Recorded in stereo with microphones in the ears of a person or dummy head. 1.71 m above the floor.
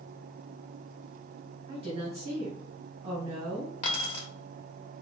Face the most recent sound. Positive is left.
turn(degrees=40)  # may be behind; listen again after turning